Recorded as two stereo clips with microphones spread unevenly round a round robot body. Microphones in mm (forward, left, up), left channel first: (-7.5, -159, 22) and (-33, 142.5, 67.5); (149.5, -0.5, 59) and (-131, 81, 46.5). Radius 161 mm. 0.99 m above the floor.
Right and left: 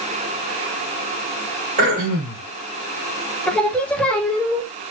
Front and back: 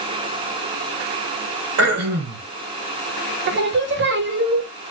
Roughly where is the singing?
Behind.